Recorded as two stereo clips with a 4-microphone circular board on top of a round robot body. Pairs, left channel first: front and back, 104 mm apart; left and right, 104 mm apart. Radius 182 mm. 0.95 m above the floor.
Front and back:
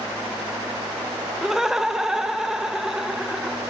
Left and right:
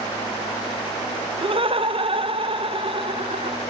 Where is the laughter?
95° right, 1.2 m.